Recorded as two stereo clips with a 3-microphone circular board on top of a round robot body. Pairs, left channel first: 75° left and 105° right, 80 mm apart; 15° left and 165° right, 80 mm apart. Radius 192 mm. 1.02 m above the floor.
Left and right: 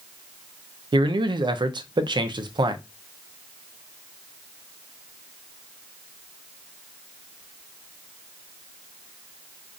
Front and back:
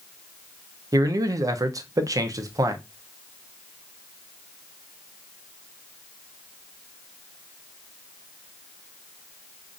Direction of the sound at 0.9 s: 120° right.